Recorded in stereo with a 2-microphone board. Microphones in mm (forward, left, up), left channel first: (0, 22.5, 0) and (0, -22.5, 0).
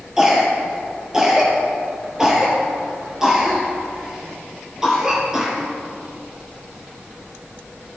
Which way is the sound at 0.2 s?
10° right (ahead or behind).